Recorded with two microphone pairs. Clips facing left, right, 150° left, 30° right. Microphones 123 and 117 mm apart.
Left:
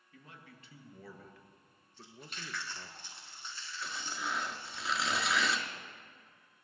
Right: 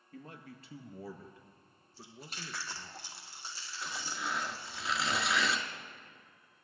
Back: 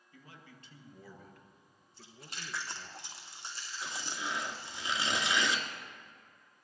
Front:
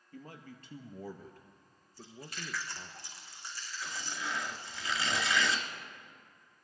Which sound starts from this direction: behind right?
Chewing, at 1.9 s.